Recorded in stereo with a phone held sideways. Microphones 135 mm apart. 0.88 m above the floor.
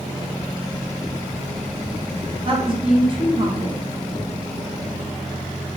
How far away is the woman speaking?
About 0.9 m.